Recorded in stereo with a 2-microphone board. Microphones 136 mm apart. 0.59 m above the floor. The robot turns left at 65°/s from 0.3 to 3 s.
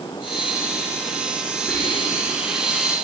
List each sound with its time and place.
1.7 s whispering: 20° left (ahead or behind), 9.5 m; by 2.4 s 25° right (ahead or behind), 9.5 m